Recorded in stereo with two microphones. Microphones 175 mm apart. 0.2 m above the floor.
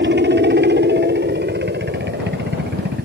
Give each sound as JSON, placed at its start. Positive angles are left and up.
{"t": 0.0, "sound": "a helicopter", "side_deg": -70}